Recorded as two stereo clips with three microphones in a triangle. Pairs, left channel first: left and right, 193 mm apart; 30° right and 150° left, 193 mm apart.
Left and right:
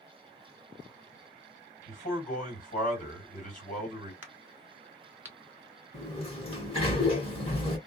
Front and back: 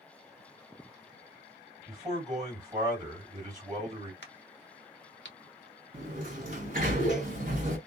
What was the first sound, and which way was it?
A man speaking, 90° left.